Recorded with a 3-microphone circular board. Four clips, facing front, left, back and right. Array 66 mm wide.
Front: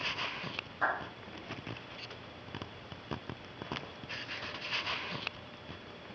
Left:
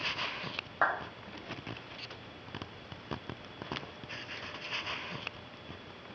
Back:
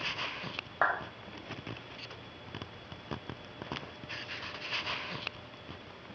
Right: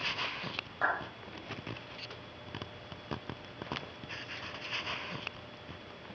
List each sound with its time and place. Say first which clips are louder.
0.8 s a clap: left 2 dB, back 3 dB; 150° left, 2.5 m